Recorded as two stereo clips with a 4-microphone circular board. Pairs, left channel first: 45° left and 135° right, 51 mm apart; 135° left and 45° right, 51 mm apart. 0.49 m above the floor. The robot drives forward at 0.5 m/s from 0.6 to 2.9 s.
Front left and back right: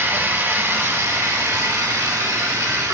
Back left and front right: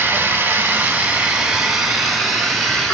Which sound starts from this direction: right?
Running water, at 0.0 s.